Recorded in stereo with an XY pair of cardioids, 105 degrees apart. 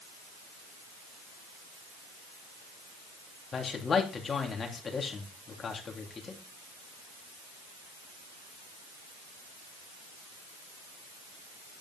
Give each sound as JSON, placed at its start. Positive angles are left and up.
{"t": 3.5, "sound": "a man speaking", "azimuth_deg": 40, "distance_m": 3.0}